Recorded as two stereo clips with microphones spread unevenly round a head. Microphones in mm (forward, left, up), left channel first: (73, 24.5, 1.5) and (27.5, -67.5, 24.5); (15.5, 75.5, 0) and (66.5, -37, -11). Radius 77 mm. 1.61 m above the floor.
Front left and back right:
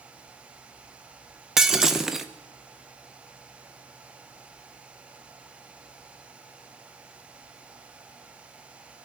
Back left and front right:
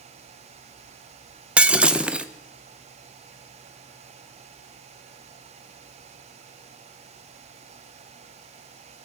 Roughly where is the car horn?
No car horn in this recording.